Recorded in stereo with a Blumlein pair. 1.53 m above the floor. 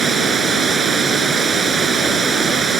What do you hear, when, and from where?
0.0 s running water: 20° right